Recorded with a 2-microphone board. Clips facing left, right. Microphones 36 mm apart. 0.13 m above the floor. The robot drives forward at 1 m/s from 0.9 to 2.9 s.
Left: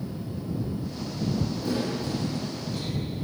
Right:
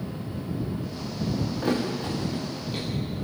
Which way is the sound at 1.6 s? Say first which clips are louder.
Right 2 dB; 50° right (ahead or behind).